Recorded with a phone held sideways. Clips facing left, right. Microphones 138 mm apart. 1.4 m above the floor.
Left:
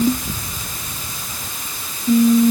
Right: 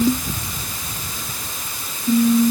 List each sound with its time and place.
Only background noise.